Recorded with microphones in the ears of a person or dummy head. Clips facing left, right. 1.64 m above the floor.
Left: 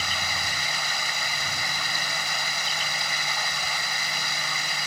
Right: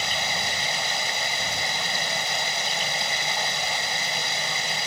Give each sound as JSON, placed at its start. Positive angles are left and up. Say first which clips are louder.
{"t": 0.0, "sound": "running water", "louder": "right 4 dB", "side_deg": -30}